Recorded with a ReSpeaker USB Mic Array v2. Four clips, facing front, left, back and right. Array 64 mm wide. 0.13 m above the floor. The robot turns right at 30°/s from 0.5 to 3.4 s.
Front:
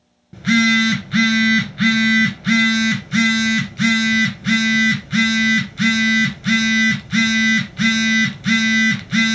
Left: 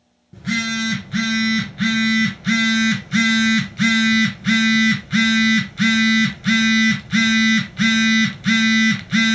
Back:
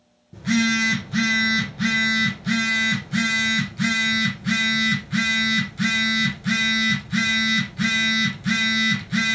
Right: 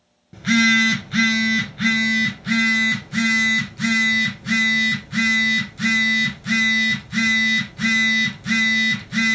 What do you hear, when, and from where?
0.3 s a phone buzzing: 30° right, 0.9 m; by 9.3 s 55° left, 0.9 m